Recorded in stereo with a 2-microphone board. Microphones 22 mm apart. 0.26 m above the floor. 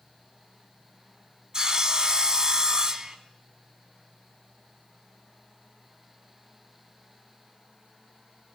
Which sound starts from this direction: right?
Sawing, at 1.5 s.